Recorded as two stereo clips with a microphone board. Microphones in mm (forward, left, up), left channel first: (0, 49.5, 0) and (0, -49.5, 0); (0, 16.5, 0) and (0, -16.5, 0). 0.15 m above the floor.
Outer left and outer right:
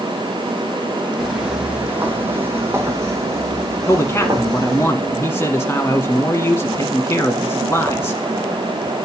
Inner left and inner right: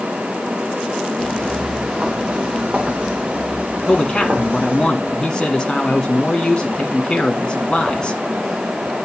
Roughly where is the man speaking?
Left.